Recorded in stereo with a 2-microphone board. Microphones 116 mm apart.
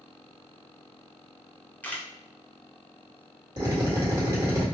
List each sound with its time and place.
1.8 s a camera shutter: 15° left (ahead or behind), 0.6 m
3.6 s a drill: 35° right (ahead or behind), 1.6 m